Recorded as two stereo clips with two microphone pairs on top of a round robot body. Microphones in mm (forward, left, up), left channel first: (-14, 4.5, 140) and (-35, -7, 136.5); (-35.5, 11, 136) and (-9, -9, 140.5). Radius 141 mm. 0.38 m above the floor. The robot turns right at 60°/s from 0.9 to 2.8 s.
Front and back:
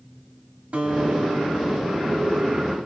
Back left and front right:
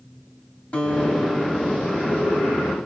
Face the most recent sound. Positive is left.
turn(degrees=-55)